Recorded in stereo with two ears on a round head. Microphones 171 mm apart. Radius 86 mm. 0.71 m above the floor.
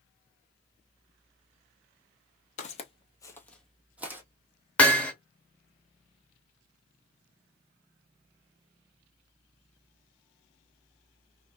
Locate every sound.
2.6 s footsteps: 40° left (ahead or behind), 0.9 m; by 4.2 s 15° right (ahead or behind), 1.1 m
4.8 s hammering: 10° left (ahead or behind), 1.0 m